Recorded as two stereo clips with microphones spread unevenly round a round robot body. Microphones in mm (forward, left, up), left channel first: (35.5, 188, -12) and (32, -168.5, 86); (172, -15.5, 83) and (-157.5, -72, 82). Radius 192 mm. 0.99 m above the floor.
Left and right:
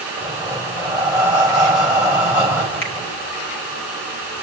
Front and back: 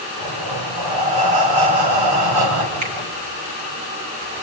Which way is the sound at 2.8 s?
150° left.